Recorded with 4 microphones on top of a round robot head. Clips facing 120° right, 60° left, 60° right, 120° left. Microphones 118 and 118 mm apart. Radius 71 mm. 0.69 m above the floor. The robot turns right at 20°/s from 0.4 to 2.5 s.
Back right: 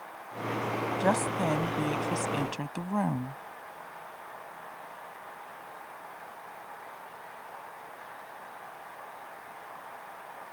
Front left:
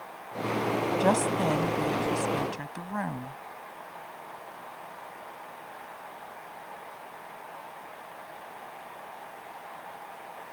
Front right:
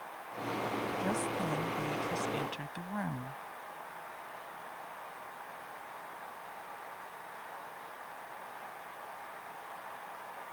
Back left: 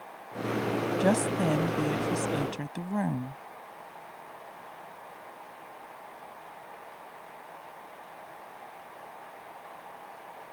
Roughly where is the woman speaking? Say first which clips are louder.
Front left 2 dB, back left 11 dB; behind left.